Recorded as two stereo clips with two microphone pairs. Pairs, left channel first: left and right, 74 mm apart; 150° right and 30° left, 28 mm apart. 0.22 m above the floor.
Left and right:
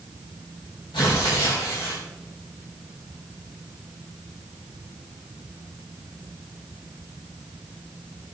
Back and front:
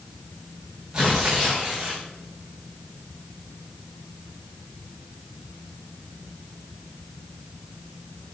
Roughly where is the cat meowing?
I don't hear a cat meowing.